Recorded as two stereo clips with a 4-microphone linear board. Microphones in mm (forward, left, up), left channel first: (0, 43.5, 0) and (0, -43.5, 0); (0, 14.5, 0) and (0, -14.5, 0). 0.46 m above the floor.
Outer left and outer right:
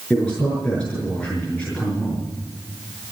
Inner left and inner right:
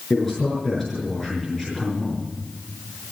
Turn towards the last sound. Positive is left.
turn(degrees=10)  # may be behind; listen again after turning